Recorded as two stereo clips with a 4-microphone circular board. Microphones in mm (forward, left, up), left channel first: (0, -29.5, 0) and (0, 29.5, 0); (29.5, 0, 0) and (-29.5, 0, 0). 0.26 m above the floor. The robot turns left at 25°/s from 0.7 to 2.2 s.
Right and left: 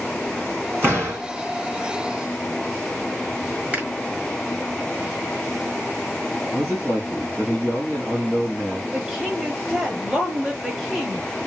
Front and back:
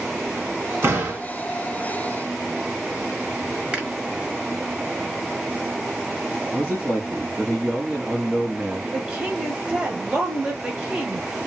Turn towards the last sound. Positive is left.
turn(degrees=145)